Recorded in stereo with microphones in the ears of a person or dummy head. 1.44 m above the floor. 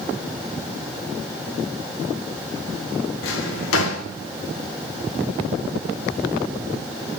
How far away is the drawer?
About 1.6 m.